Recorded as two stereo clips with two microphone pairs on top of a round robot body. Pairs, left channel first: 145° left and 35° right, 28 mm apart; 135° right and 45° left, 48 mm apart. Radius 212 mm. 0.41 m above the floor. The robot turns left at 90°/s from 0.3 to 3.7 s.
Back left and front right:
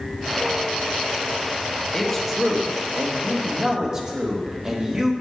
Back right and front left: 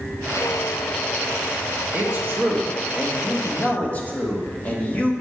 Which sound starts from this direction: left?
A man speaking, at 1.9 s.